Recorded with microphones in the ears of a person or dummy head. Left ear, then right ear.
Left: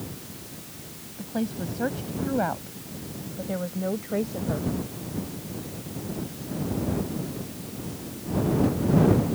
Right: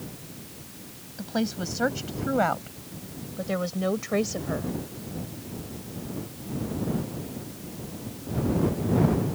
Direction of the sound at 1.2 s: 60° right (ahead or behind).